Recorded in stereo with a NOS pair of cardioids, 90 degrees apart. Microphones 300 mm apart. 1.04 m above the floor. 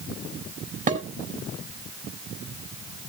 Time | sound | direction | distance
0.9 | dishes clattering | 25° right | 4.5 m